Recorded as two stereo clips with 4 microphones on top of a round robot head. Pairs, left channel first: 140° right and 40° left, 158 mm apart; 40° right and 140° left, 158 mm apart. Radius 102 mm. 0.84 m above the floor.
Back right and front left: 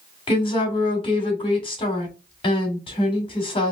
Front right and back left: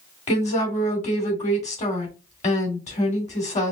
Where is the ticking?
No ticking in this recording.